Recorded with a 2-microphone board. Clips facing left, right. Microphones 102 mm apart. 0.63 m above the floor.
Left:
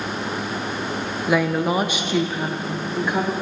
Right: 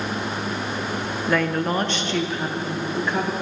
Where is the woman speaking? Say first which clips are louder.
Left 2 dB; 10° left (ahead or behind), 0.7 m; by 3.3 s 5° left (ahead or behind), 1.2 m.